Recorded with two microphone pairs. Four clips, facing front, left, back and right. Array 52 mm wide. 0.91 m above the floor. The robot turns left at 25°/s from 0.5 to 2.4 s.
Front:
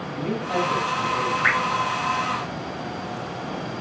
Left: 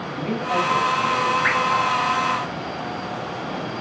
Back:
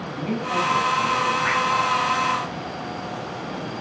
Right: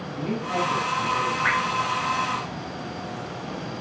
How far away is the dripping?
About 4.5 m.